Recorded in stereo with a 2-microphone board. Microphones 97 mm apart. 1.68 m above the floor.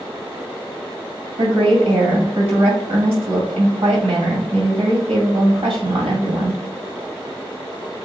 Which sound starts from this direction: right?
A woman speaking, at 1.4 s.